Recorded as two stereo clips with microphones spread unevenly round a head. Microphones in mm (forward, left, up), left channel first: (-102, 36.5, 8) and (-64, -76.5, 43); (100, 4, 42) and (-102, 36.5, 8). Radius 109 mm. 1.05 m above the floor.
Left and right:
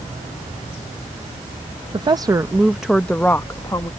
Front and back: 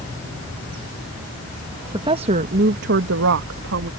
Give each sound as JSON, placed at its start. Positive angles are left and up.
{"t": 1.9, "sound": "a woman speaking", "azimuth_deg": -120}